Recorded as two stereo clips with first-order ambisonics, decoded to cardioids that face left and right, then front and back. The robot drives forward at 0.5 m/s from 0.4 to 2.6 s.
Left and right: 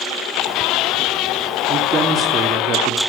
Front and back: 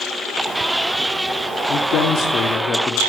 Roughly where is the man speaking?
Ahead right.